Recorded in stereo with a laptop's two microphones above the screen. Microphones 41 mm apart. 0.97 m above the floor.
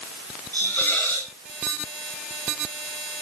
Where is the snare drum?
I don't hear a snare drum.